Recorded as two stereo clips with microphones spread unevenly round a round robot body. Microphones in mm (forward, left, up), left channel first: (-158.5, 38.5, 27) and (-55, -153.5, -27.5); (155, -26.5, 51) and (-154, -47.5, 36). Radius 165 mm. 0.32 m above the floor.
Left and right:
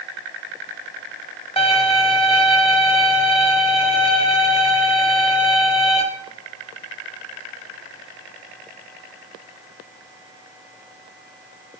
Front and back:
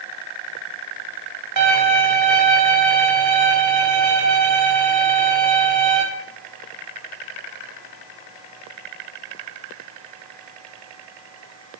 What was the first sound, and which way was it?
A violin, 170° right.